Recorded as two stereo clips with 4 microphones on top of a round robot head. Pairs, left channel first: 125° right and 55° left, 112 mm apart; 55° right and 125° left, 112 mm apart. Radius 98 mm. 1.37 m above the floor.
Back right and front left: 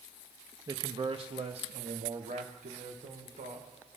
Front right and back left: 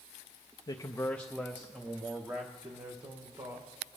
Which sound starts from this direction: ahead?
A man speaking, at 0.7 s.